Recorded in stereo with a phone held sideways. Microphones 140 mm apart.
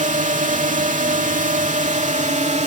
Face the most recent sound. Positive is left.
turn(degrees=-60)  # may be behind; listen again after turning